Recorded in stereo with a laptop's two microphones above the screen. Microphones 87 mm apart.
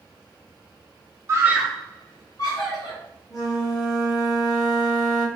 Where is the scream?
35° right (ahead or behind), 0.6 m; by 3.0 s 55° left (ahead or behind), 1.4 m.